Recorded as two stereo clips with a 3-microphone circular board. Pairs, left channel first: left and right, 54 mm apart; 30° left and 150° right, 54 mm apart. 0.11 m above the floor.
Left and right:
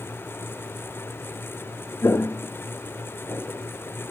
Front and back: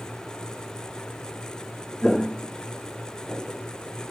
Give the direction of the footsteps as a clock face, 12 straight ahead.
8 o'clock.